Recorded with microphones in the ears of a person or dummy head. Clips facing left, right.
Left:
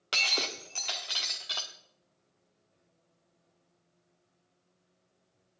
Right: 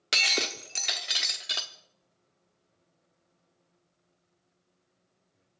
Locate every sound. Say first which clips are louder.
0.1 s breaking glass: right 3 dB; 30° right (ahead or behind), 1.3 m